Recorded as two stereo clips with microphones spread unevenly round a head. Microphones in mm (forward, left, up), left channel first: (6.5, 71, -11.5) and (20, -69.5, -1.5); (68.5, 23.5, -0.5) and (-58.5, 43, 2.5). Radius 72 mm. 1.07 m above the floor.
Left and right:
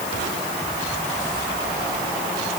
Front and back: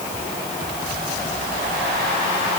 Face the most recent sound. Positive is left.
No sound to turn to.